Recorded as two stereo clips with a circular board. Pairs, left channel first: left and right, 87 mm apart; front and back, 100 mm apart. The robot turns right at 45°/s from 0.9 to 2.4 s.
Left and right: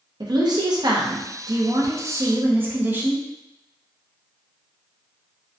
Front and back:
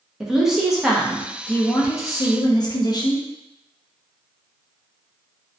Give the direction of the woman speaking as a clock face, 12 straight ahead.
3 o'clock.